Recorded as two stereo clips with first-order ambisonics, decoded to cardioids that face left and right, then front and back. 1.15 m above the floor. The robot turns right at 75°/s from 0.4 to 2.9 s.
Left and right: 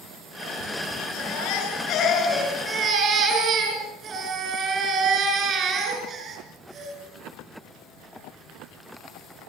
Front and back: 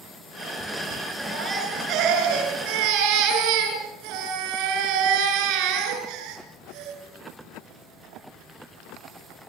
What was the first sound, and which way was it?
A baby crying, 75° left.